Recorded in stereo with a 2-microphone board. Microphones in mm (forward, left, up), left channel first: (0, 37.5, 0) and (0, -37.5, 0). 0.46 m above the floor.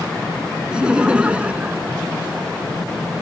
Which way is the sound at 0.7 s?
10° right (ahead or behind).